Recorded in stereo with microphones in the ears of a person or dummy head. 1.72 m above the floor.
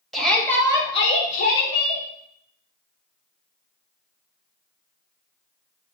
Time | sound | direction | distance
0.1 | a shout | centre (ahead or behind) | 2 m